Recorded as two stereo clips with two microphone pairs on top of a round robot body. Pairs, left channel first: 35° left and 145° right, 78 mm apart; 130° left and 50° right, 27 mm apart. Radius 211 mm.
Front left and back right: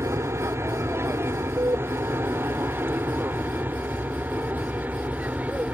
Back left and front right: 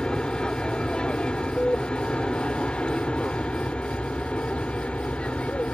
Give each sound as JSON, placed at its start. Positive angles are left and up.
{"t": 0.0, "sound": "an aircraft", "azimuth_deg": 175}